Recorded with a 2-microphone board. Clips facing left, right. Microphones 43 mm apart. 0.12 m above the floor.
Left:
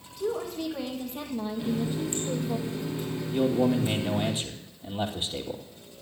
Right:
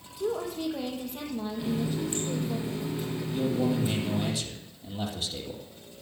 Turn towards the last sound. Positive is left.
turn(degrees=25)  # may be behind; listen again after turning